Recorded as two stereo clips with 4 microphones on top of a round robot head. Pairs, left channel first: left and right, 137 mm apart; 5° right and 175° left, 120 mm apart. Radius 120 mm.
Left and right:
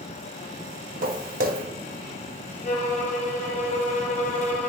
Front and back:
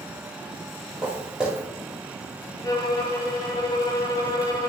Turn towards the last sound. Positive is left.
turn(degrees=55)